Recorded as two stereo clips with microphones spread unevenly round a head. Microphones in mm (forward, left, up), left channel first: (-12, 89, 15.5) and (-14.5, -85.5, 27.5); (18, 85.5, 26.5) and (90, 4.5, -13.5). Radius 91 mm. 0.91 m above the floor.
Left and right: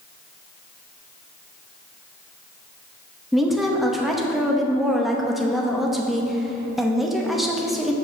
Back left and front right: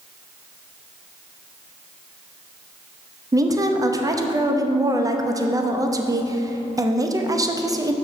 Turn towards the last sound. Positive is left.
turn(degrees=0)